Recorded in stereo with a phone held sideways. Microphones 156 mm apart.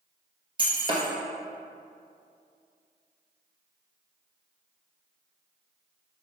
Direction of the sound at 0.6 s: 30° right (ahead or behind).